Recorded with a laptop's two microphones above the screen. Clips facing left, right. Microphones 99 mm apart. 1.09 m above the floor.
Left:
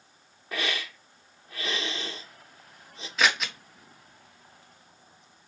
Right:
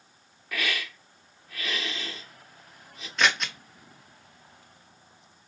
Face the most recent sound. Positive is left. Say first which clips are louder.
# even
turn(degrees=5)  # may be behind; listen again after turning